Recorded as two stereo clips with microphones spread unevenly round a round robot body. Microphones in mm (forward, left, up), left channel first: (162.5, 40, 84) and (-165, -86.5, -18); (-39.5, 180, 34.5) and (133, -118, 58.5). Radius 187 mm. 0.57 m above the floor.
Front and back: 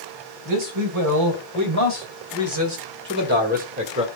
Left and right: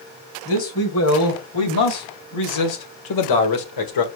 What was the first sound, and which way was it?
A man speaking, 175° left.